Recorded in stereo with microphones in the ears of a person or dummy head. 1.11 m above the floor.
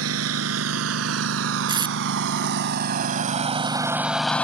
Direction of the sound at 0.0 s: 75° right (ahead or behind).